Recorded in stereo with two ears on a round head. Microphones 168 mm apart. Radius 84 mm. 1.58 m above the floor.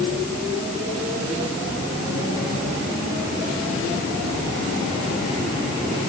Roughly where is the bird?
No bird in this recording.